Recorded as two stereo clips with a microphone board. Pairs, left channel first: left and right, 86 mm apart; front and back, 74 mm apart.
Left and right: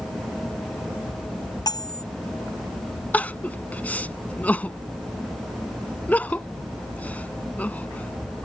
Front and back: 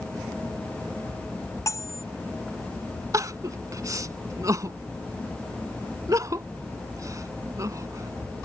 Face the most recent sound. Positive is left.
turn(degrees=155)